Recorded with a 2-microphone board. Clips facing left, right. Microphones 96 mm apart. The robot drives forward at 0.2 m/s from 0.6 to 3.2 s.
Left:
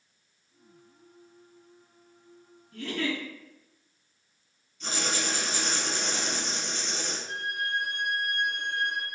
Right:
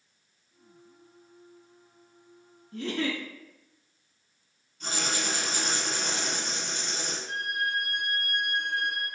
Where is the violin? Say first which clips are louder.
Right 2 dB; 55° right (ahead or behind), 1.0 m.